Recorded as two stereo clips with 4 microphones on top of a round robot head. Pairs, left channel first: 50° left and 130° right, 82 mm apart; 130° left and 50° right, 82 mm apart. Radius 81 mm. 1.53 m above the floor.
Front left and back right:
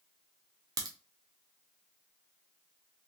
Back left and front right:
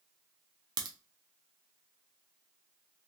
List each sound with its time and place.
0.8 s a crack: 85° right, 0.8 m